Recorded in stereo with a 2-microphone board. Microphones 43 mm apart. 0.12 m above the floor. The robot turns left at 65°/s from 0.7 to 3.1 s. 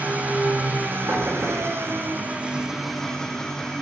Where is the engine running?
40° right, 2.5 m; by 3.8 s 165° left, 2.5 m.